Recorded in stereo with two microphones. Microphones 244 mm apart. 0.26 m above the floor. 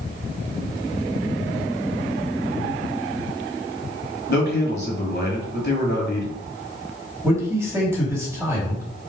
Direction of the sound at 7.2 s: 10° right (ahead or behind).